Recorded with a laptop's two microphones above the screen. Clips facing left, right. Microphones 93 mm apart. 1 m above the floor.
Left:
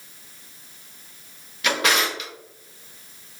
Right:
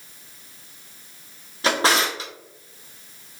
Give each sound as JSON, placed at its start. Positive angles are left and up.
{"t": 1.6, "sound": "a drawer", "side_deg": -35, "distance_m": 0.6}